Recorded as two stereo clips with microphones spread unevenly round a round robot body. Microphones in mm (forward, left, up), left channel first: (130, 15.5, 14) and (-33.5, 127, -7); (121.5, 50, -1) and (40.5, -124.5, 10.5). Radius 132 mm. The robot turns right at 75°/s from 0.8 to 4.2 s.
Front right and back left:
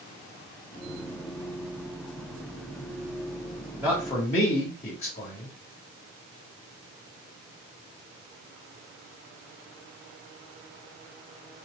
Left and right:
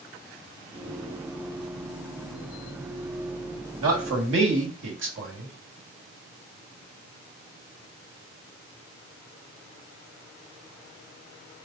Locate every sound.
3.8 s a man speaking: 135° right, 1.5 m; by 5.5 s 105° right, 1.5 m